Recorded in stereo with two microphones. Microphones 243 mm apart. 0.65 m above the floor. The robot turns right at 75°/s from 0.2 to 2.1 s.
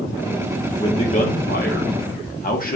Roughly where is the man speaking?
Ahead left.